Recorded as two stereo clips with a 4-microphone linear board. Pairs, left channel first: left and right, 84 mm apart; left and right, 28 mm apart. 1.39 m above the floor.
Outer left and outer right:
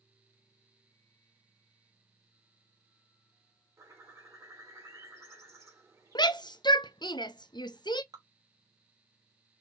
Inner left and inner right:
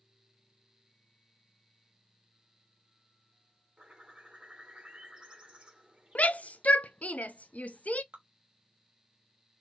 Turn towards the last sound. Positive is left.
turn(degrees=-50)  # may be behind; listen again after turning